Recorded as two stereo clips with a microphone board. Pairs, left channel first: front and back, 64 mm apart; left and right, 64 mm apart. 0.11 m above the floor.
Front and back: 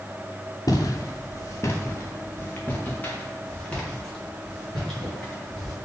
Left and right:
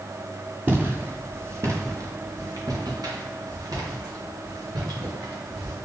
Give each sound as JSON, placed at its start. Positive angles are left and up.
{"t": 0.7, "sound": "footsteps", "azimuth_deg": -30, "distance_m": 2.5}